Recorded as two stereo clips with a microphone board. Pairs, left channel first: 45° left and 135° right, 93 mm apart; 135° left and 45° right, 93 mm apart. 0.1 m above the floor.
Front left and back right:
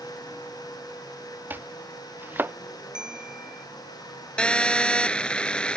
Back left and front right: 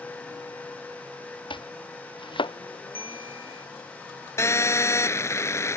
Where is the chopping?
155° left.